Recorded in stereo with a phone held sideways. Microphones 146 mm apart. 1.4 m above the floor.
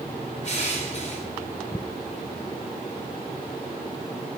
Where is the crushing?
50° left (ahead or behind), 3.5 m.